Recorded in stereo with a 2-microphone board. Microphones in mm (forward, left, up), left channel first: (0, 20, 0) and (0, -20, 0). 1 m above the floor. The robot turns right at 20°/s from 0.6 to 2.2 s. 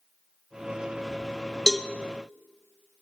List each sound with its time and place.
1.7 s a cowbell: 5° left (ahead or behind), 0.6 m; by 1.9 s 10° left (ahead or behind), 0.6 m